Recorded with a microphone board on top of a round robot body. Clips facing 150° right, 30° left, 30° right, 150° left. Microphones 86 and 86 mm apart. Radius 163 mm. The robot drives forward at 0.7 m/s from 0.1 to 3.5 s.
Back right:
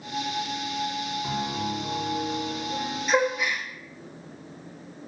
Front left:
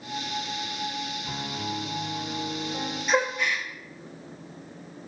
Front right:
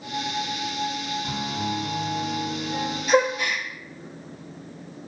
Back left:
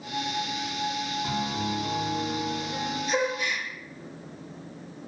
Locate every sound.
1.2 s a piano: 175° right, 2.5 m
3.1 s a gasp: 55° right, 1.4 m; by 3.6 s 65° right, 1.3 m